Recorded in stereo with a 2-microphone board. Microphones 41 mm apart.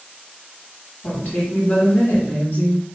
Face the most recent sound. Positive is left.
turn(degrees=40)  # may be behind; listen again after turning